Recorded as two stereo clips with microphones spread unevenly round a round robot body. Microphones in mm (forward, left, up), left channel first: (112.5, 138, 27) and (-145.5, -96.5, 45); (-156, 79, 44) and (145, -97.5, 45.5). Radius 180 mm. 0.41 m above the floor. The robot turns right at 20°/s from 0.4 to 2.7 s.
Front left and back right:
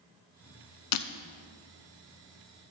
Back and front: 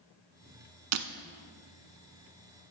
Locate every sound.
0.9 s breaking glass: 10° left, 0.5 m; by 1.1 s 15° left, 0.5 m